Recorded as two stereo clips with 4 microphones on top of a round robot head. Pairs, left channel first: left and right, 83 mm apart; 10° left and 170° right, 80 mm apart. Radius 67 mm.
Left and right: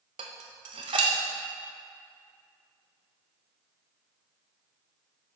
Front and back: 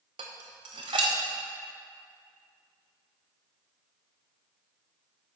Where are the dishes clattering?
130° right, 0.7 m.